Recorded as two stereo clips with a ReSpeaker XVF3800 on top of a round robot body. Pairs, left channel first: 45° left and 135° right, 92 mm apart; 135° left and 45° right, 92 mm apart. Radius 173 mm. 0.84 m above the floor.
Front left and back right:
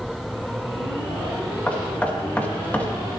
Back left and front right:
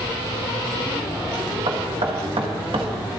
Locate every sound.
1.7 s knocking: 25° right, 2.0 m